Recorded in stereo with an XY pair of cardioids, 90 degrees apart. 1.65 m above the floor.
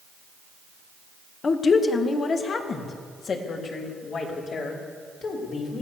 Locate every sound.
1.4 s a woman speaking: 50° left, 2 m; by 5.8 s 65° left, 6.5 m